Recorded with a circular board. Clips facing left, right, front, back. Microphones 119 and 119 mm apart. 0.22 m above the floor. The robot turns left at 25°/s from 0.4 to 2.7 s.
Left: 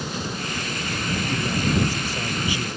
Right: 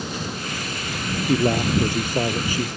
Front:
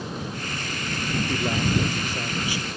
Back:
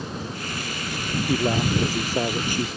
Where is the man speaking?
105° right; by 2.7 s 140° right.